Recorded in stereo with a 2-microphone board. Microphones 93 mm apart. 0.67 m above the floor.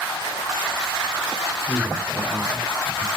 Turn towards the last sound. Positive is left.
turn(degrees=-20)  # may be behind; listen again after turning